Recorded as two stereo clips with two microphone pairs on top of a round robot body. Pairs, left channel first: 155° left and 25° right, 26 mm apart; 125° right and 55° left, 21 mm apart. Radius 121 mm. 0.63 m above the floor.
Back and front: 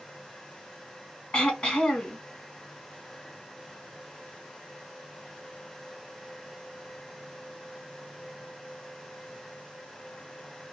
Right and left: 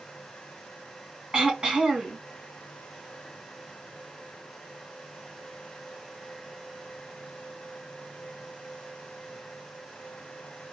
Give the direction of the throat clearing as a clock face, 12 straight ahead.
9 o'clock.